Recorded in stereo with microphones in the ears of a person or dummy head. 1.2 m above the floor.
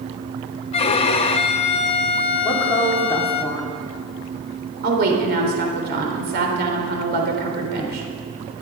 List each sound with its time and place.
0.7 s a violin: 30° left (ahead or behind), 0.7 m
2.4 s a woman speaking: 15° left (ahead or behind), 2.5 m
4.8 s a woman speaking: 50° right (ahead or behind), 3.5 m